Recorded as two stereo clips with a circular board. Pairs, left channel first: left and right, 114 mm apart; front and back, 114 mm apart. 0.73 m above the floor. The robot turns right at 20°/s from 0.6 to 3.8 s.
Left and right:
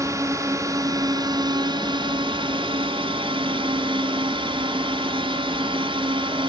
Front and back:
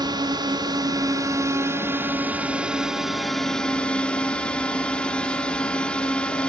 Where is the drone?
145° right; by 6.5 s 80° right.